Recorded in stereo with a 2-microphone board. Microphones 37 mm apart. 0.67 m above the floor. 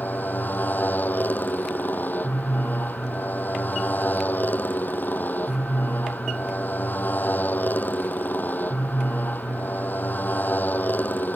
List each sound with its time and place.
0.0 s a motorcycle: 60° left (ahead or behind)